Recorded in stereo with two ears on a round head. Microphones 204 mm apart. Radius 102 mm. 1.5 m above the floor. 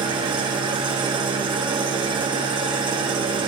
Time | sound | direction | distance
0.0 | an engine running | 20° right (ahead or behind) | 1.0 m